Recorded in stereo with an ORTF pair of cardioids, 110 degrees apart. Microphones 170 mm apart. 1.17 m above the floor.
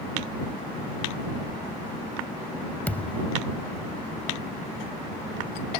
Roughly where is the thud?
Ahead.